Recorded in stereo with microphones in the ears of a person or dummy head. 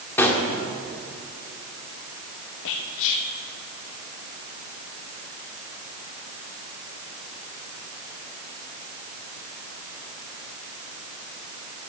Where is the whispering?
70° left (ahead or behind), 0.7 m.